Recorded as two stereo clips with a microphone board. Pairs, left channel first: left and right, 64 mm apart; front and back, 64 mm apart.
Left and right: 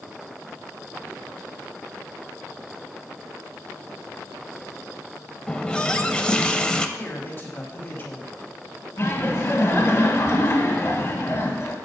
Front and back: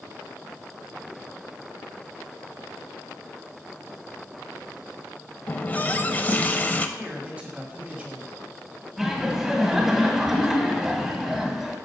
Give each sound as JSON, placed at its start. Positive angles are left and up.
{"t": 5.5, "sound": "a running tap", "azimuth_deg": 30, "distance_m": 0.6}
{"t": 7.0, "sound": "a man speaking", "azimuth_deg": 125, "distance_m": 1.7}
{"t": 9.0, "sound": "laughter", "azimuth_deg": 100, "distance_m": 2.0}